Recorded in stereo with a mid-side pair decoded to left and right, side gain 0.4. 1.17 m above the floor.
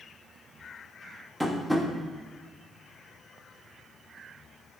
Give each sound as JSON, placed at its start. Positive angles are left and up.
{"t": 1.4, "sound": "tapping", "azimuth_deg": 0, "distance_m": 1.3}